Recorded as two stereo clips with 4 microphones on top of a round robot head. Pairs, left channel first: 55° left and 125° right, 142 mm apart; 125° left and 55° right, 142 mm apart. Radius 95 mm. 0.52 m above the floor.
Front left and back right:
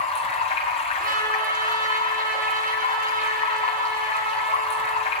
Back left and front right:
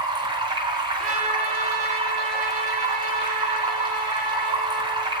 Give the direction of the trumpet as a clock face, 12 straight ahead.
3 o'clock.